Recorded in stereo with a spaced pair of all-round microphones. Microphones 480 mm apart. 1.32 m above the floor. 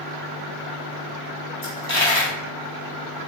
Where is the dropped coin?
50° left (ahead or behind), 2.0 m.